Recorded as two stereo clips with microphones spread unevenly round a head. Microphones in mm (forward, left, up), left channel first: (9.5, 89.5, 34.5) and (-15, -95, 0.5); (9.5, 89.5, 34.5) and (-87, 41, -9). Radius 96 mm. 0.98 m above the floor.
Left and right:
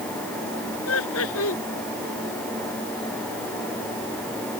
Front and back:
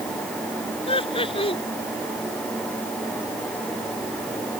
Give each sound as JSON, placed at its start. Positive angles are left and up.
{"t": 0.9, "sound": "laughter", "azimuth_deg": 65}